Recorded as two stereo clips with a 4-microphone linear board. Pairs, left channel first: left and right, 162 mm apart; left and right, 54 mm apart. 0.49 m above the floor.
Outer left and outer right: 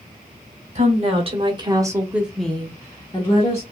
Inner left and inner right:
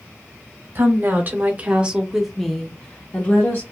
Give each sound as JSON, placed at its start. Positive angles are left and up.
{"t": 0.8, "sound": "a woman speaking", "side_deg": -45, "distance_m": 1.2}